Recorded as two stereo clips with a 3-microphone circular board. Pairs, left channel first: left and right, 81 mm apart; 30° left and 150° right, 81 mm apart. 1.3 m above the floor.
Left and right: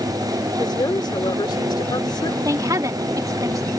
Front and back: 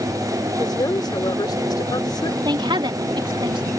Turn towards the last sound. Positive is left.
turn(degrees=-135)